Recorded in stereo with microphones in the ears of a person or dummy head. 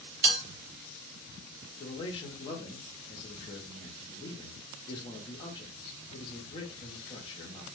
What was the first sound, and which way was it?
A bell, 40° right (ahead or behind).